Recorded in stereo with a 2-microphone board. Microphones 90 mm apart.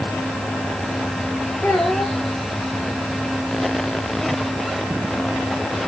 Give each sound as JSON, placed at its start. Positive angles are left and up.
{"t": 1.6, "sound": "a child speaking", "side_deg": 15, "distance_m": 9.0}